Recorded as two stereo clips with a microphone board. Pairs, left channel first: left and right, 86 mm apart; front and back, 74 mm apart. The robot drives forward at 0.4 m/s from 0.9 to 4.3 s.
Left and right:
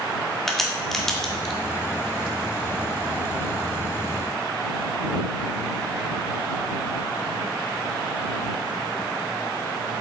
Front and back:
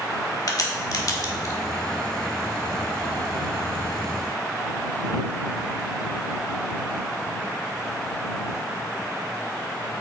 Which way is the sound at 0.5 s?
5° left.